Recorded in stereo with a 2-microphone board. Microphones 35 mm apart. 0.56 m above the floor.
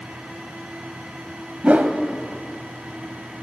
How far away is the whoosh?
About 1.4 m.